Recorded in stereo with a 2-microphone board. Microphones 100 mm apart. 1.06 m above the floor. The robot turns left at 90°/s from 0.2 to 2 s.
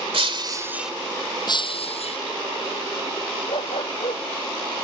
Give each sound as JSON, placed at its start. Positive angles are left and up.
{"t": 0.1, "sound": "breaking glass", "azimuth_deg": -115}
{"t": 1.5, "sound": "breaking glass", "azimuth_deg": 135}
{"t": 3.5, "sound": "a dog barking", "side_deg": 75}